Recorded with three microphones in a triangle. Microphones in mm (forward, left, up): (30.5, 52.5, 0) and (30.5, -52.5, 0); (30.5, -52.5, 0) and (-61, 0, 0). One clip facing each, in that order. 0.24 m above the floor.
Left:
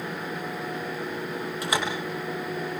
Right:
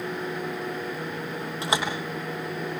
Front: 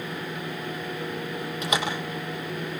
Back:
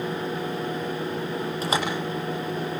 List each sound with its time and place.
1.6 s a door slam: 155° right, 7.5 m